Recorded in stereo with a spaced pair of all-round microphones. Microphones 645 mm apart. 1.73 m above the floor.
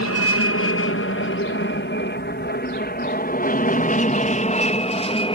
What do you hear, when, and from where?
0.0 s an aircraft: 20° left (ahead or behind); by 5.3 s 10° left (ahead or behind)